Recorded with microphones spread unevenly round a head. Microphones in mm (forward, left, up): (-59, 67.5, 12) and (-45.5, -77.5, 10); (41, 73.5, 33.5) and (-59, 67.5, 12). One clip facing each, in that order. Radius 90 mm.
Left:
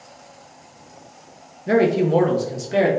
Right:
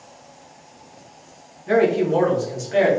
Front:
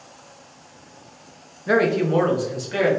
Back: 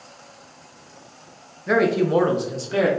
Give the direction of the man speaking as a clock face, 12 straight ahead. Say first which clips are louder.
Even, even; 9 o'clock.